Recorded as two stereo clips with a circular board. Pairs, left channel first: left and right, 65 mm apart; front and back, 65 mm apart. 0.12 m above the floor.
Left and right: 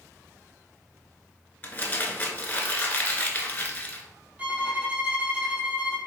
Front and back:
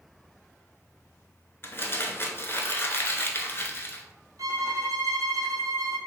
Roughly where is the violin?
Behind.